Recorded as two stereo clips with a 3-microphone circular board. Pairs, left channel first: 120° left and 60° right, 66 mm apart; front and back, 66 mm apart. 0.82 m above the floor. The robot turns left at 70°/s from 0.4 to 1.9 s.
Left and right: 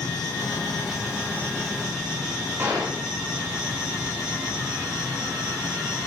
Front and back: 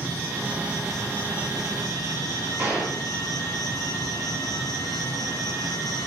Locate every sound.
0.0 s an insect: 125° left, 3 m; by 6.1 s 20° left, 3 m
2.6 s a gunshot: 110° right, 6.5 m